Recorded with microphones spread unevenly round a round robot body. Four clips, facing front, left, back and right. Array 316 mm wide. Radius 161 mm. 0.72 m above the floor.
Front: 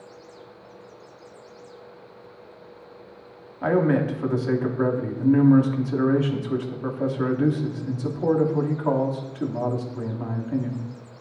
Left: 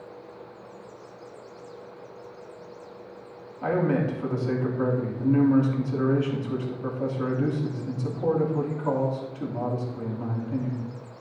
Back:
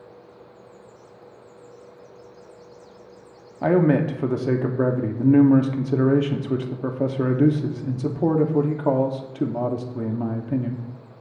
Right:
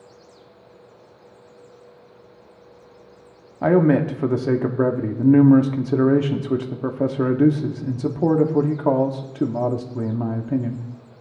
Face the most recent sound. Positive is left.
turn(degrees=-120)